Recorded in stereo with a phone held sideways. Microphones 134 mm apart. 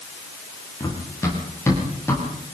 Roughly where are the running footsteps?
Left.